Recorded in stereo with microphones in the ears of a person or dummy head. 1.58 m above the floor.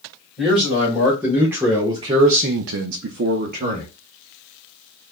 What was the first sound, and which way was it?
A man speaking, centre (ahead or behind).